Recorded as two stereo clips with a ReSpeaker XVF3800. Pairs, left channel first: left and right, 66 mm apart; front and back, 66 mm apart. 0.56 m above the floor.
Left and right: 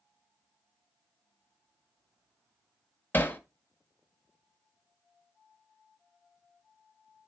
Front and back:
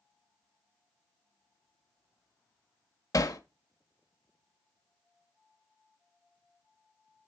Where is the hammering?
30° left, 1.0 m.